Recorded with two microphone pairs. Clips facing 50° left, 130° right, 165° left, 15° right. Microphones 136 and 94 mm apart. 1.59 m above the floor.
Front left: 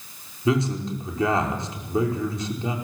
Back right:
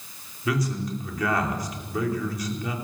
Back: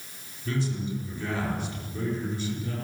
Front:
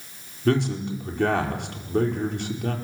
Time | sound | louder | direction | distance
0.5 | a man speaking | front left 4 dB, front 8 dB | 10° right | 5 m